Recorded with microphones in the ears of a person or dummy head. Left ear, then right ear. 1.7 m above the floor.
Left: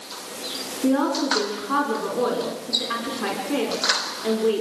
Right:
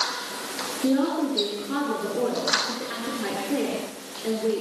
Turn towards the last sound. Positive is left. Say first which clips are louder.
# left 3 dB
turn(degrees=40)  # may be behind; listen again after turning